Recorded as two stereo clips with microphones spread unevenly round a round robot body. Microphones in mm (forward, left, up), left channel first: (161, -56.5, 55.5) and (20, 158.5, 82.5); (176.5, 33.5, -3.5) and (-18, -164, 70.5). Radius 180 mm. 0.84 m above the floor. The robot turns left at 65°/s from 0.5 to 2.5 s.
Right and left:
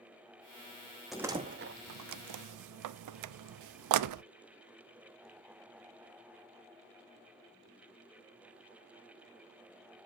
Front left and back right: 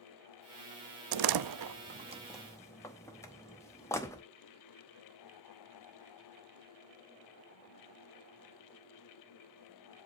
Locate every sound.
1.1 s a door slam: 145° right, 0.5 m; by 4.2 s 125° left, 0.5 m